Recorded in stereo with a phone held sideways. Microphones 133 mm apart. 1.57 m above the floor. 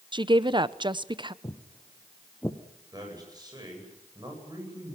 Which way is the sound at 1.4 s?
30° left (ahead or behind).